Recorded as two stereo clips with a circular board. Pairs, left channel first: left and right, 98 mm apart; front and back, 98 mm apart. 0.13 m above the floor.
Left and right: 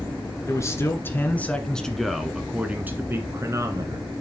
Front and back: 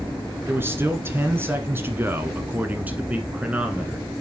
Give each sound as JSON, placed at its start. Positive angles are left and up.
{"t": 0.5, "sound": "a man speaking", "azimuth_deg": 125, "distance_m": 1.5}